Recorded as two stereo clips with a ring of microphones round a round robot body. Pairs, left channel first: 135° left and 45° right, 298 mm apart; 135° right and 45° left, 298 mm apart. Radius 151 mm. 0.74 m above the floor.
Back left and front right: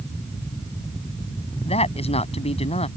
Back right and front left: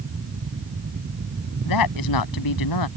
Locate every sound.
1.6 s a woman speaking: 155° right